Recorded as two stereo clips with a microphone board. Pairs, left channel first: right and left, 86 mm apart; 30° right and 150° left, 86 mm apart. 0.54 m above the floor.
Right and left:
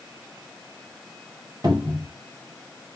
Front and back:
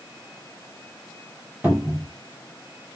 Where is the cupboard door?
85° left, 1.5 m.